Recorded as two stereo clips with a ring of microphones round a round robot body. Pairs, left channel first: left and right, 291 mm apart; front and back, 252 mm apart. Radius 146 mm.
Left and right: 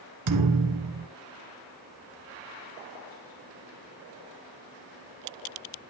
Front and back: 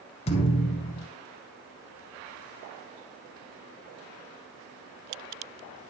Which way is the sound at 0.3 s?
70° right.